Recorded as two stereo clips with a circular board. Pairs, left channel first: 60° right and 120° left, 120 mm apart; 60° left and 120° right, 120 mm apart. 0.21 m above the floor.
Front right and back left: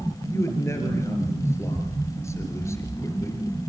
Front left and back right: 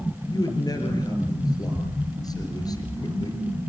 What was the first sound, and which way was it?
A man speaking, 5° left.